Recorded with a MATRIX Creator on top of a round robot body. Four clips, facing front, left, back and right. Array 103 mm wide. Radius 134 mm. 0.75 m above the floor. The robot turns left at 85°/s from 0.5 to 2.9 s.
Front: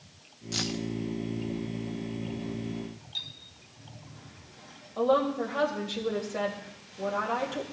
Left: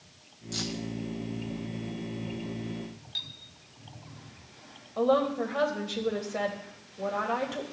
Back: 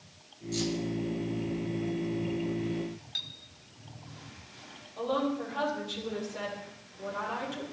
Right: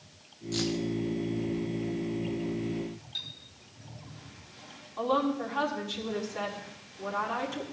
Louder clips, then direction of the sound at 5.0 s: Left 3 dB, front 5 dB; 60° left.